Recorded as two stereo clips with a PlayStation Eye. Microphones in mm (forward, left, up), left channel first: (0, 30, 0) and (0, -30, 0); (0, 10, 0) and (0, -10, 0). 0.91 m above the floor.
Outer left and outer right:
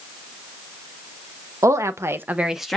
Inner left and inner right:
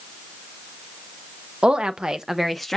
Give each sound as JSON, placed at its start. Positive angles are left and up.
{"t": 1.6, "sound": "a woman speaking", "side_deg": -55, "distance_m": 0.8}